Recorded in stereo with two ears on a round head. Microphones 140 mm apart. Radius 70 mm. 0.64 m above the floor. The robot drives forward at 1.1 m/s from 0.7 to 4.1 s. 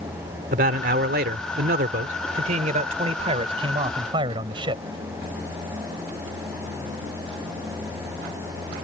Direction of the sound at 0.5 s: 60° right (ahead or behind).